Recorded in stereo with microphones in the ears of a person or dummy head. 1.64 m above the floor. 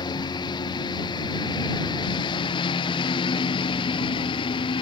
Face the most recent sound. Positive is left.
turn(degrees=25)  # may be behind; listen again after turning